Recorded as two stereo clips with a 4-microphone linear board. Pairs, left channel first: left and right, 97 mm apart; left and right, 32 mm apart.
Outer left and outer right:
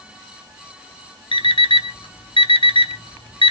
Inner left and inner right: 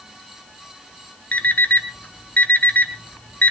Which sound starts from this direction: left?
An alarm clock, at 1.3 s.